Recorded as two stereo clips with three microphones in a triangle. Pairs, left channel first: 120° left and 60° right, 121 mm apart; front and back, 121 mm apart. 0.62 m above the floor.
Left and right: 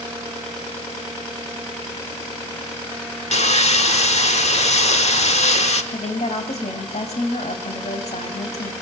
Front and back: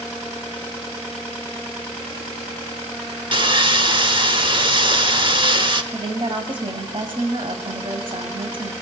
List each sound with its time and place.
3.3 s sawing: 140° left, 1.2 m
5.9 s a woman speaking: 140° left, 3.5 m